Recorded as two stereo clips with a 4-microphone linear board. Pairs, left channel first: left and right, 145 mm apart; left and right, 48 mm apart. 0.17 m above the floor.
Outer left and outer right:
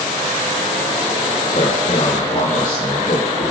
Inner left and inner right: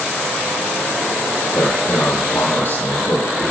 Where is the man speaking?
65° left (ahead or behind), 8 m; by 3.5 s 50° left (ahead or behind), 5.5 m.